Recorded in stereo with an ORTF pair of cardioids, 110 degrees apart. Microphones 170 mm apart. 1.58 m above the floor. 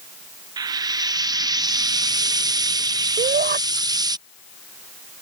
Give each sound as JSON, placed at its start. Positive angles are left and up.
{"t": 0.6, "sound": "frying", "azimuth_deg": -25}
{"t": 3.2, "sound": "a shout", "azimuth_deg": -65}